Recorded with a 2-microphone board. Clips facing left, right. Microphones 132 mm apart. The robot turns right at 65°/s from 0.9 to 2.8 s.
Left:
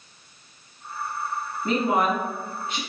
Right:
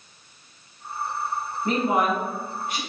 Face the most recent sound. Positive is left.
turn(degrees=115)